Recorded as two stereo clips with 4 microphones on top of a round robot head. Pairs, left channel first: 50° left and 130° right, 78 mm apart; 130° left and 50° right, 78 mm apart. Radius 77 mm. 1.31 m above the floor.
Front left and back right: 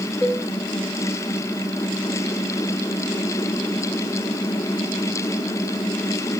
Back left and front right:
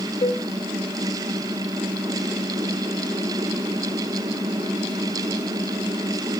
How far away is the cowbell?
About 1.9 m.